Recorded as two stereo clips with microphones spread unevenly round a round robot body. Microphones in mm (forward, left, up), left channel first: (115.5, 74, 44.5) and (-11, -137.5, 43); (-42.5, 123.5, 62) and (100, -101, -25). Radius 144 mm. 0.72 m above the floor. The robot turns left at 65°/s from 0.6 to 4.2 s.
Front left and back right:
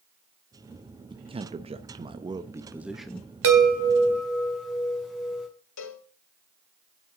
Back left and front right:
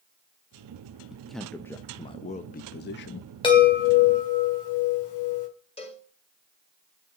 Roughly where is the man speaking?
Right.